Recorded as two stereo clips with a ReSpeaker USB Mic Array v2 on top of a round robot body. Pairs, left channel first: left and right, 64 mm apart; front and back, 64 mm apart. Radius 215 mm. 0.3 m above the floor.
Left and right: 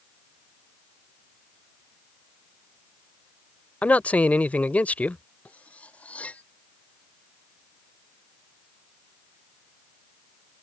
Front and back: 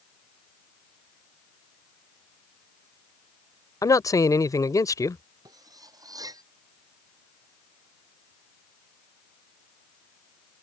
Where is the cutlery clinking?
160° left.